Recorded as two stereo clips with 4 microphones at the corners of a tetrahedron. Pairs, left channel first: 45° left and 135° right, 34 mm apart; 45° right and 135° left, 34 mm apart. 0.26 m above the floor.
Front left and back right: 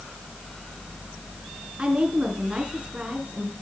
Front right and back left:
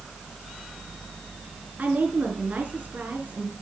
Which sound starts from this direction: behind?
A woman speaking, at 1.8 s.